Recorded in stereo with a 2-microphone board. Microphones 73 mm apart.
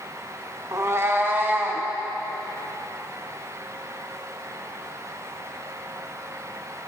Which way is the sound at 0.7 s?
50° right (ahead or behind).